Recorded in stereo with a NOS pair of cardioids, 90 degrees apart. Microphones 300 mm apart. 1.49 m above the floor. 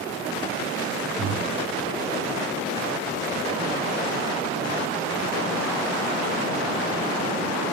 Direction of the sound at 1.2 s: 40° right.